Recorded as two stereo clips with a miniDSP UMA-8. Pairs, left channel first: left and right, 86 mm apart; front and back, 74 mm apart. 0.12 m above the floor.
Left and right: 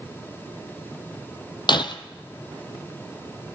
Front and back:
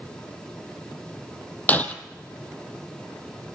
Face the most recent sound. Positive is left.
turn(degrees=70)